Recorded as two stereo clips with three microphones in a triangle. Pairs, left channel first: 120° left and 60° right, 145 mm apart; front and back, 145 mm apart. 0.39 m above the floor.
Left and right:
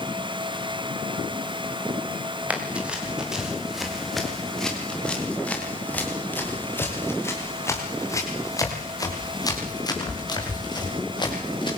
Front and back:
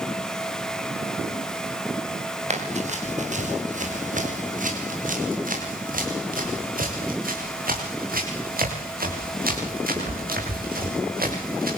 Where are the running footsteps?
140° right, 7.5 m; by 11.8 s straight behind, 12 m.